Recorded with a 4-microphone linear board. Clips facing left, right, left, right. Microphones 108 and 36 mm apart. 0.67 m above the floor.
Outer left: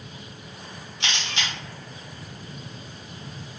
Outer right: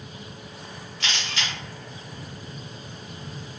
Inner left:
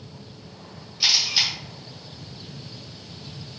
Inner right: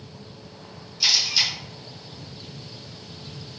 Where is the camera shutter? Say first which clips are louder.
Even, even; 20° left (ahead or behind), 1.4 m.